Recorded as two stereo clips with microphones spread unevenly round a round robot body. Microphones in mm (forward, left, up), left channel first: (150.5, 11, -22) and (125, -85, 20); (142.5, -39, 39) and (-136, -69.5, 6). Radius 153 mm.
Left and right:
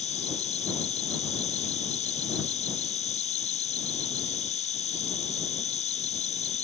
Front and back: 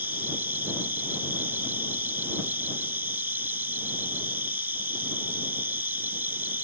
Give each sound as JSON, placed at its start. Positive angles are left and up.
{"t": 0.0, "sound": "an insect", "azimuth_deg": 100}